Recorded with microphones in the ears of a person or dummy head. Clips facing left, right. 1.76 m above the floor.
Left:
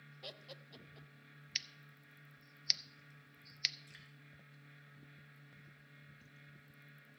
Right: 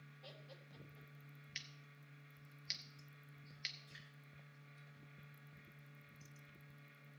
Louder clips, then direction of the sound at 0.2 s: Left 6 dB; 75° left (ahead or behind).